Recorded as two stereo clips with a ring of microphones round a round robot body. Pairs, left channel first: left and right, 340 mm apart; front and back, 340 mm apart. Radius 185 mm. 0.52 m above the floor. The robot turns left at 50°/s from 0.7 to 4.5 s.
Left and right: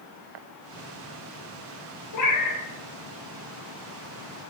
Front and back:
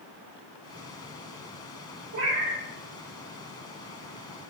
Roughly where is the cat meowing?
Behind left.